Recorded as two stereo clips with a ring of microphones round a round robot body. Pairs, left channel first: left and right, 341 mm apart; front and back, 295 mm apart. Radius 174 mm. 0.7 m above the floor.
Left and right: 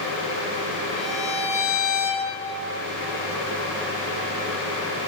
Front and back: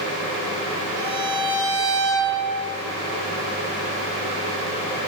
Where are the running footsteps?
I don't hear running footsteps.